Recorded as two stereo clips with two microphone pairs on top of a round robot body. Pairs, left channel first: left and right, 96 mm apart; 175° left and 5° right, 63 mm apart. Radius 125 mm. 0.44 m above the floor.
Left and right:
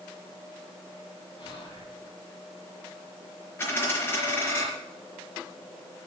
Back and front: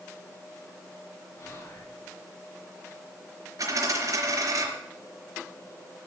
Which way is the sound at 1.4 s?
125° left.